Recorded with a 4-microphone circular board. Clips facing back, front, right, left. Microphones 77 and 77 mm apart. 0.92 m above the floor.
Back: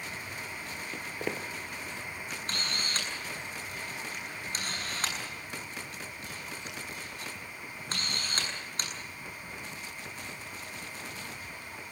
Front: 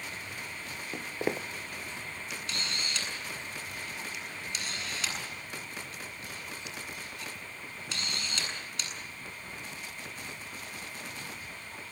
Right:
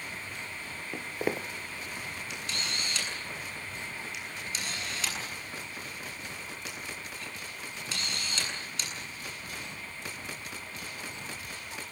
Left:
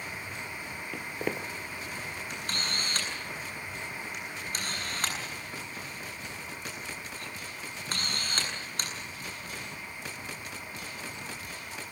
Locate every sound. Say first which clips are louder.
0.9 s footsteps: front 4 dB, right 2 dB; 30° right, 0.9 m
2.3 s a camera shutter: back 1 dB, left 2 dB; 130° left, 8 m